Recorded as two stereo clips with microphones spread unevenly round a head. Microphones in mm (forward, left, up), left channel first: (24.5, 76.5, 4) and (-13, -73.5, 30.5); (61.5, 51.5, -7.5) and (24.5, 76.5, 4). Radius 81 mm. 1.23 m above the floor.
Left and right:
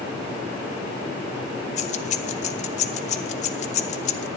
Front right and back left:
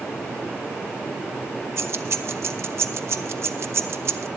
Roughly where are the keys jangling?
Behind left.